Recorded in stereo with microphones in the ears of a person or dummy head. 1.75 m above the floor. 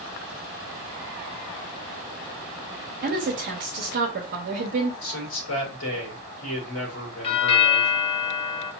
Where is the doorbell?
30° left (ahead or behind), 0.6 m.